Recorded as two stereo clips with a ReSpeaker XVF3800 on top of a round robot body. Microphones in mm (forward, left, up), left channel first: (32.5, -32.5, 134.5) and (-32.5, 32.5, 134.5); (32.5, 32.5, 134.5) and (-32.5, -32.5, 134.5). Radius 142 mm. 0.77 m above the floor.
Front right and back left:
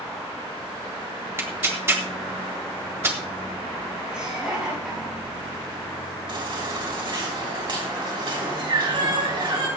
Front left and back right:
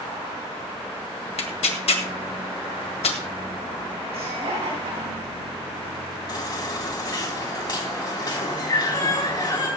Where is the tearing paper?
70° left, 1.7 m.